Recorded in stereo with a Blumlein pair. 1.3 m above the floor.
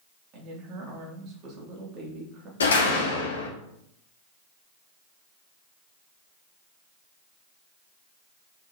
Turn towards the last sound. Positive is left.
turn(degrees=70)